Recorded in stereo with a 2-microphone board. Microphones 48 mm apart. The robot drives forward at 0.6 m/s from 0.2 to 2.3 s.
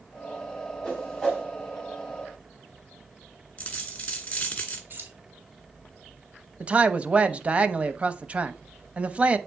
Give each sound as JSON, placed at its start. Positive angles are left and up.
{"t": 0.8, "sound": "a whoosh", "side_deg": 10, "distance_m": 5.0}
{"t": 3.6, "sound": "a dropped coin", "side_deg": 30, "distance_m": 1.6}
{"t": 4.9, "sound": "keys jangling", "side_deg": -40, "distance_m": 3.0}
{"t": 6.6, "sound": "a man speaking", "side_deg": -25, "distance_m": 0.5}